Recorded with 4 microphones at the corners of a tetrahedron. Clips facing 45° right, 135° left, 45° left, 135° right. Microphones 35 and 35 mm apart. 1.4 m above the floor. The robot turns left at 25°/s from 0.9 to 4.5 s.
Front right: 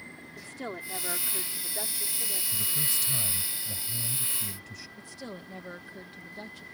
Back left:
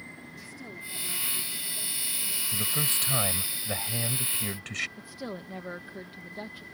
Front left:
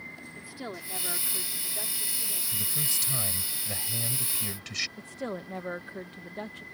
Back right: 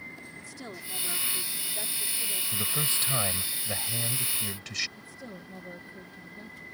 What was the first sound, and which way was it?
A woman speaking, 25° right.